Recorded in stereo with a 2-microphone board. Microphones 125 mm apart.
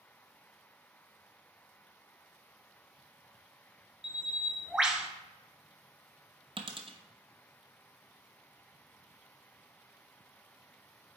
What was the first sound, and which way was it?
A bird, 5° right (ahead or behind).